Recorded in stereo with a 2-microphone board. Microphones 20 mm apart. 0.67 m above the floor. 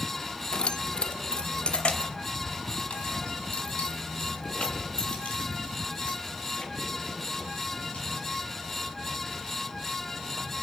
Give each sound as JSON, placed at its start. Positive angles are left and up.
{"t": 0.5, "sound": "keys jangling", "side_deg": 45, "distance_m": 0.7}